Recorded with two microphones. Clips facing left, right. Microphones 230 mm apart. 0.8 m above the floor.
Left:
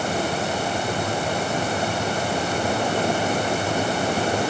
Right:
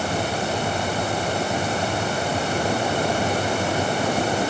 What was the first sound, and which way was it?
Only background noise.